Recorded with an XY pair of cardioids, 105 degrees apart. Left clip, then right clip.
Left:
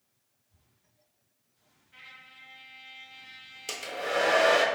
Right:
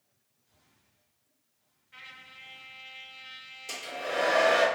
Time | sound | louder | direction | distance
1.9 | a trumpet | right 2 dB | 35° right | 0.6 m
3.7 | a hair dryer | left 3 dB | 65° left | 0.8 m